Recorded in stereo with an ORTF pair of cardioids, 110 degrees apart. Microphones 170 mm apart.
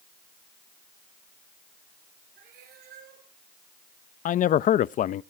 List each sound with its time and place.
2.4 s a cat meowing: 70° right, 9 m
4.2 s a man speaking: 50° left, 0.7 m